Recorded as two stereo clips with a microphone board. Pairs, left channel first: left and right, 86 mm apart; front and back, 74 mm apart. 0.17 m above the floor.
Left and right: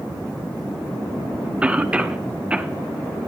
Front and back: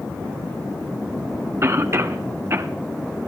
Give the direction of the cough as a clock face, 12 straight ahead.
5 o'clock.